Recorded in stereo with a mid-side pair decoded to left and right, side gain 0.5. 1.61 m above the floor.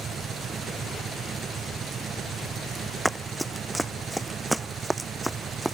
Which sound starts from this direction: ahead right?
An engine running, at 0.0 s.